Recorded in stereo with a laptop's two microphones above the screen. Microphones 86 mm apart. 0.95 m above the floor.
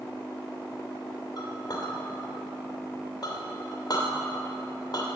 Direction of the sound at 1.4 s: 55° left (ahead or behind).